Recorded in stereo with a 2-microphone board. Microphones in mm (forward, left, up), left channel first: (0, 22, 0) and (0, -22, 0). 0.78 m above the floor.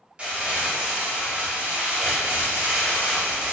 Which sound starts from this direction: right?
Crumpling, at 0.2 s.